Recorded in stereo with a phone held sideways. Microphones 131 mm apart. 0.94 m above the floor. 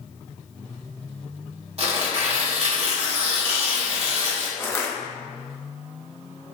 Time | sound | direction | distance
1.8 | tearing paper | 50° right (ahead or behind) | 1.3 m
4.6 | crushing | 20° left (ahead or behind) | 0.7 m